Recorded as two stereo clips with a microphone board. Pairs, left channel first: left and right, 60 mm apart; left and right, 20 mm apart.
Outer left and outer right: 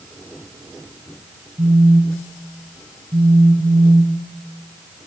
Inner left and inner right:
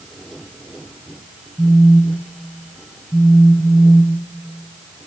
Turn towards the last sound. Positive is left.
turn(degrees=-70)  # may be behind; listen again after turning